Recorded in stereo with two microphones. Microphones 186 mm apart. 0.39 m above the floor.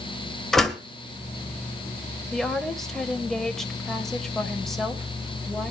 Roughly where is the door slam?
Centre.